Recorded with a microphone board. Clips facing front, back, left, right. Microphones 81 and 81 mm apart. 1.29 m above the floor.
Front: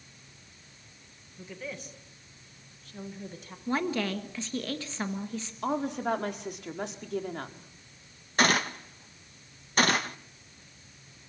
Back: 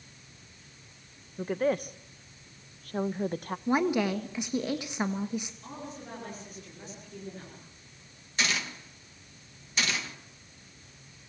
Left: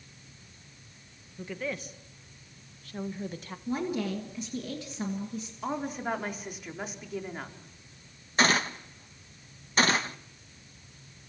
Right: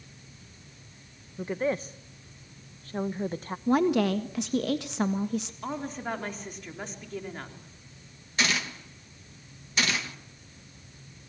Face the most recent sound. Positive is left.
turn(degrees=40)